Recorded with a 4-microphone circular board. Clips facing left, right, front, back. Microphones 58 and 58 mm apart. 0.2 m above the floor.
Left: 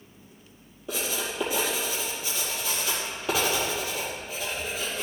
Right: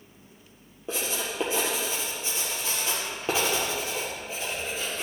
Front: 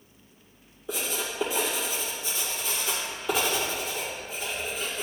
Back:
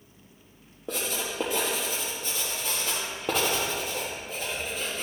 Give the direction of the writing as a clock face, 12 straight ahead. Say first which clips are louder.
Even, even; 5 o'clock.